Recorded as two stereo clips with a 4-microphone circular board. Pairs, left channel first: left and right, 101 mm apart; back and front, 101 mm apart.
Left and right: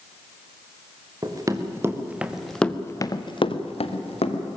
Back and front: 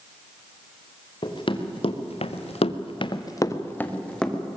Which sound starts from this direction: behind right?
Running footsteps, at 1.2 s.